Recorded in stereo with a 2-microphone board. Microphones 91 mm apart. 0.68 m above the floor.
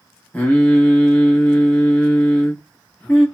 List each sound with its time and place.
0.3 s singing: 20° left (ahead or behind), 0.8 m